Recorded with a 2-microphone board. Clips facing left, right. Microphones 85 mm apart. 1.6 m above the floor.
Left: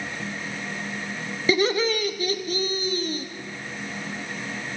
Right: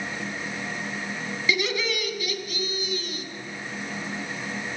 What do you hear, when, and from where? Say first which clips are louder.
1.5 s laughter: left 6 dB; 40° left (ahead or behind), 0.8 m